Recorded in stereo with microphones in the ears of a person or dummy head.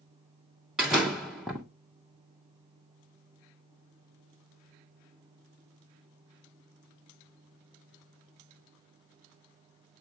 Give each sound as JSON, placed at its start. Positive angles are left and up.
{"t": 0.8, "sound": "a door slam", "side_deg": 0, "distance_m": 0.7}